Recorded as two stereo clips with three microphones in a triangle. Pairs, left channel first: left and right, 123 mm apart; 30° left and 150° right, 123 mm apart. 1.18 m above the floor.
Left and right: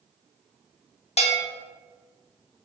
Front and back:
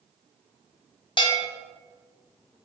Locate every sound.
1.2 s a bell: 70° left, 0.7 m